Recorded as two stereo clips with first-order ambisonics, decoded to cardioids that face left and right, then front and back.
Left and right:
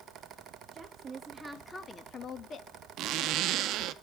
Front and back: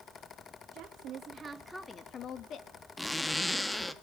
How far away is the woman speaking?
About 1.3 m.